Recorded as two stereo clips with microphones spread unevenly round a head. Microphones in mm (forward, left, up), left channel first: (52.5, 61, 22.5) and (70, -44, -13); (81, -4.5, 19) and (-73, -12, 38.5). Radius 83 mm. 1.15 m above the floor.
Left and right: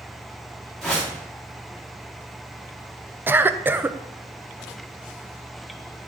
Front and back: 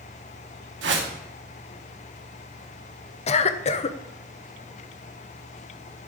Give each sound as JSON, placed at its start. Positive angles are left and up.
{"t": 0.8, "sound": "a whoosh", "azimuth_deg": -175, "distance_m": 1.4}
{"t": 3.3, "sound": "a cough", "azimuth_deg": -25, "distance_m": 0.7}